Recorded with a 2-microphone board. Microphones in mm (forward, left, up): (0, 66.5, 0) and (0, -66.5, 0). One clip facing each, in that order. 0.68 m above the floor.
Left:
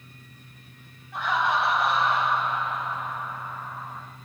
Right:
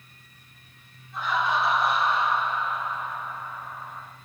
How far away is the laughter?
About 3.5 m.